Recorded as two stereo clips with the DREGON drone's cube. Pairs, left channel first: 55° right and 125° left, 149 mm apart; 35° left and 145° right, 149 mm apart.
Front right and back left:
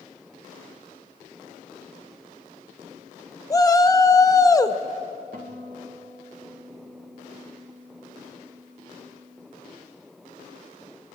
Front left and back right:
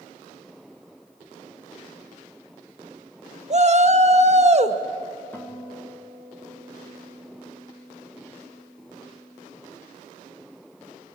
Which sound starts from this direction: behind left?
A guitar, at 5.3 s.